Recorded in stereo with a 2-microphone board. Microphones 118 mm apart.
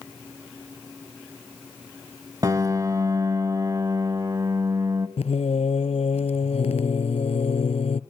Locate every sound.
2.4 s a piano: 35° right (ahead or behind), 0.9 m
5.2 s singing: 75° left (ahead or behind), 0.7 m